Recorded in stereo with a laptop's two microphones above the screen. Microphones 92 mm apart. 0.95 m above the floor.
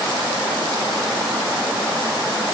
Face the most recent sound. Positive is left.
No sound to turn to.